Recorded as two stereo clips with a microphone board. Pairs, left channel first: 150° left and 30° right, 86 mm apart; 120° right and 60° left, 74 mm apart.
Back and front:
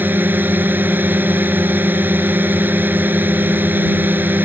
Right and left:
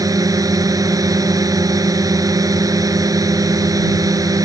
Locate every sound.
0.0 s a drone: 35° left